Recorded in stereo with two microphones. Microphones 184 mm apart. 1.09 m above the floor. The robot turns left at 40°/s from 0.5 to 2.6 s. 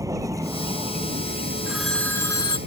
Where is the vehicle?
20° right; by 2.7 s 100° right.